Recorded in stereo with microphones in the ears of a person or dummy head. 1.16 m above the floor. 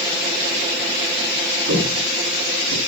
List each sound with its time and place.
1.7 s footsteps: 65° right (ahead or behind), 5.5 m; by 2.8 s 80° right, 5.5 m